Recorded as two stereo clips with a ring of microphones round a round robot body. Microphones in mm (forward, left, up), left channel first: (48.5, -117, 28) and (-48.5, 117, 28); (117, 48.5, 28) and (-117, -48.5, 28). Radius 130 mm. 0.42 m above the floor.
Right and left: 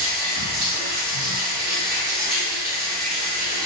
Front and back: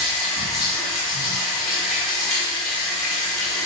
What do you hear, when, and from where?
0.0 s running water: 110° left, 1.0 m